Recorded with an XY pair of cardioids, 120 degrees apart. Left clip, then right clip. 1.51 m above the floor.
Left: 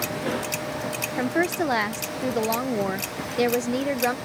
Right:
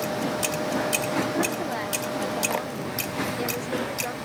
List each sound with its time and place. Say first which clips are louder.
1.2 s a woman speaking: left 2 dB; 60° left